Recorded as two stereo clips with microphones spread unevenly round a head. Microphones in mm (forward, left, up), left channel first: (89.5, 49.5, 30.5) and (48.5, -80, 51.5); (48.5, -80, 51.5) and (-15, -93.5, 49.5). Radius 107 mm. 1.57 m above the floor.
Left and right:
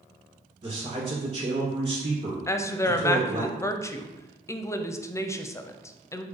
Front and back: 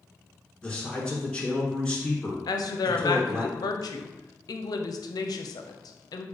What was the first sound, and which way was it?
A man speaking, 65° right.